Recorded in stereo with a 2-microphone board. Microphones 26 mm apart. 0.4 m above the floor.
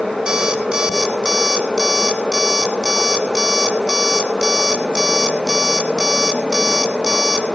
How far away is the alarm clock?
About 1.7 m.